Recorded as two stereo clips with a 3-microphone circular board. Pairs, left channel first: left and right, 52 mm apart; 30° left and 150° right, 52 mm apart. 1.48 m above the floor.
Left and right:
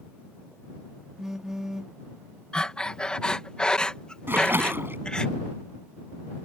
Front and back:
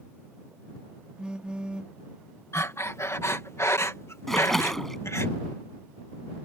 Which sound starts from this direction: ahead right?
A splash, at 4.3 s.